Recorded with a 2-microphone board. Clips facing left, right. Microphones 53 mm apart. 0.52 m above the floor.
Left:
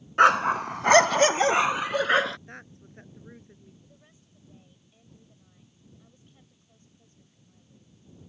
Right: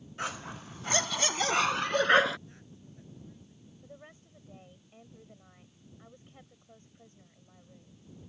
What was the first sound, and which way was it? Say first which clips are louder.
A dog barking: left 19 dB; 75° left (ahead or behind).